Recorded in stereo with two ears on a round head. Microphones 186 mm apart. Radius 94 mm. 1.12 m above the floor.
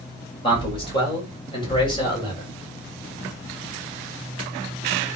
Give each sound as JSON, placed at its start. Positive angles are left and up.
{"t": 0.4, "sound": "a man speaking", "side_deg": 25, "distance_m": 7.5}